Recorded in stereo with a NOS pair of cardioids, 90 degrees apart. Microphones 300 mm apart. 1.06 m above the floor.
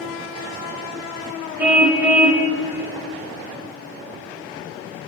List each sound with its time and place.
1.6 s a car horn: 5° right, 2.5 m